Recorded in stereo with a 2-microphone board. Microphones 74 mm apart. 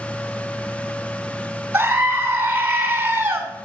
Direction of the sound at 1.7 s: 25° right (ahead or behind).